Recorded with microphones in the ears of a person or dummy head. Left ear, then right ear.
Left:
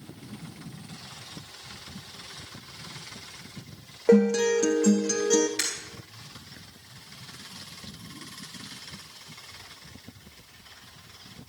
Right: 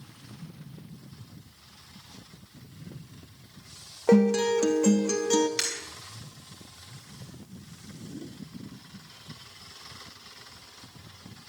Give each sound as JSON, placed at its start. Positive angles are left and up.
{"t": 4.1, "sound": "a guitar", "side_deg": -15, "distance_m": 0.9}
{"t": 5.6, "sound": "breaking glass", "side_deg": -50, "distance_m": 6.5}